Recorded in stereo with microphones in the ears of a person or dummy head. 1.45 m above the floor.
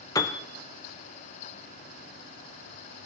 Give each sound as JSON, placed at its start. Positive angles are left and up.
{"t": 0.1, "sound": "a piano", "side_deg": 15, "distance_m": 0.6}